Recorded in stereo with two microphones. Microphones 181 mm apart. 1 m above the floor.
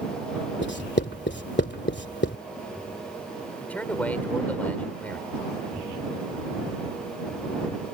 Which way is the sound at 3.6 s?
10° left (ahead or behind).